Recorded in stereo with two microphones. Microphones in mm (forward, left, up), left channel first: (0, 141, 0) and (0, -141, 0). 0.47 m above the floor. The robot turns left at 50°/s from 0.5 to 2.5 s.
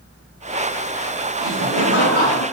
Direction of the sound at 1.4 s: 90° left.